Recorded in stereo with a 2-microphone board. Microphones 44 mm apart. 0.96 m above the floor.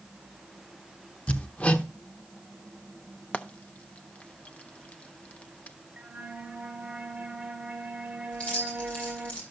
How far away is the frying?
About 0.6 m.